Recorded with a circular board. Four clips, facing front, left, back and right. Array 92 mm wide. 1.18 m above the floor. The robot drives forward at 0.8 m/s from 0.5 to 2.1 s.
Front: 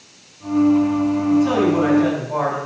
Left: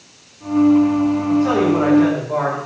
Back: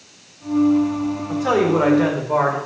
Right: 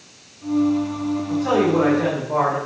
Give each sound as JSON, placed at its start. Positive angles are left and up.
{"t": 1.3, "sound": "a man speaking", "azimuth_deg": 180, "distance_m": 3.0}